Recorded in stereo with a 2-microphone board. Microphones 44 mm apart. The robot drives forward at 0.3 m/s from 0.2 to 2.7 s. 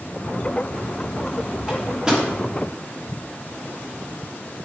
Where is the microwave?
20° right (ahead or behind), 2.5 m.